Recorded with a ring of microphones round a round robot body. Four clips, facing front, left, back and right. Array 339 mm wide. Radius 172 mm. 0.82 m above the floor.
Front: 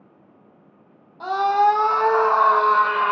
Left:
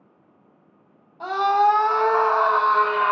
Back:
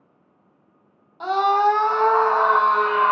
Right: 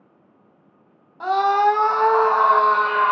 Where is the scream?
120° right, 1.0 m; by 3.1 s 10° right, 1.4 m.